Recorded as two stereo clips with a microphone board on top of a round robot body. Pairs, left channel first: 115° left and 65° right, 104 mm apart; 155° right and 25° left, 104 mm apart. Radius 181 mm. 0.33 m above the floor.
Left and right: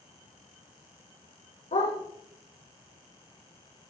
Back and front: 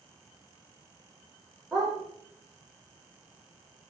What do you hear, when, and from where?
1.7 s a dog barking: 115° left, 8 m